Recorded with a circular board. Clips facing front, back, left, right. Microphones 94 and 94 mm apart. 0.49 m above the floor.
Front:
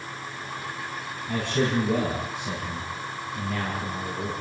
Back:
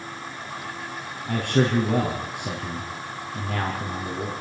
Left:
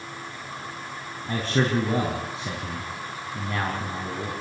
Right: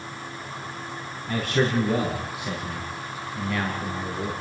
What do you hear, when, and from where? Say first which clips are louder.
1.3 s a man speaking: back 3 dB, right 1 dB; 150° left, 4.5 m